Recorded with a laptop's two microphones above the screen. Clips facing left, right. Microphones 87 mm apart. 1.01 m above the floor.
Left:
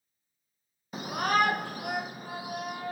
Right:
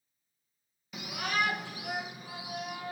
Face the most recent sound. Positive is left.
turn(degrees=45)  # may be behind; listen again after turning